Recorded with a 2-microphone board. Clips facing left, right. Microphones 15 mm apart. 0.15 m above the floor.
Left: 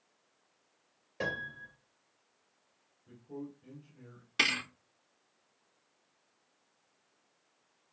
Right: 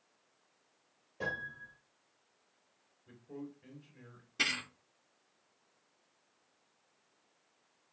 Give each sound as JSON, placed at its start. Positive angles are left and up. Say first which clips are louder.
{"t": 1.2, "sound": "a piano", "louder": "left 2 dB", "side_deg": 60, "distance_m": 2.5}
{"t": 3.1, "sound": "a man speaking", "louder": "left 2 dB", "side_deg": -35, "distance_m": 2.5}
{"t": 4.4, "sound": "a thud", "louder": "left 4 dB", "side_deg": 80, "distance_m": 2.5}